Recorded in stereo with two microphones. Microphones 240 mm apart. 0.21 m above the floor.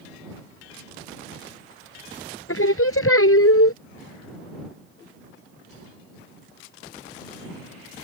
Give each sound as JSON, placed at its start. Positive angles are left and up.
{"t": 2.5, "sound": "singing", "side_deg": 70}